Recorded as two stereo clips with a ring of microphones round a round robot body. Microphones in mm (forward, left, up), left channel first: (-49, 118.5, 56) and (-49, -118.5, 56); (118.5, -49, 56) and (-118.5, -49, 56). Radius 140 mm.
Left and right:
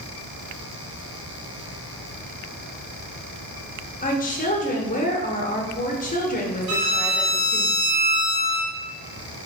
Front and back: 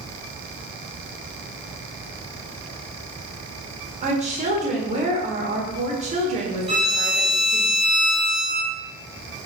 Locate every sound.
4.0 s a woman speaking: 130° left, 1.2 m
6.7 s a violin: 110° right, 1.9 m